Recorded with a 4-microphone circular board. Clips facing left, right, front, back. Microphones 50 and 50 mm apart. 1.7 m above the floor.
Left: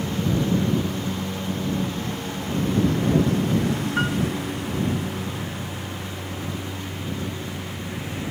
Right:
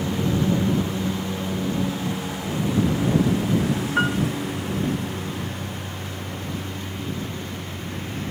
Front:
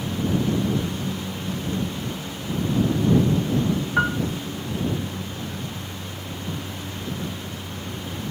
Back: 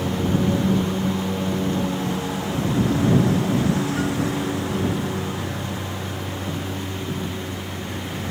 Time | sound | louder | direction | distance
0.0 | a lawn mower | right 1 dB, back 3 dB | 170° right | ?
4.0 | a piano | right 4 dB, front 3 dB | 20° right | ?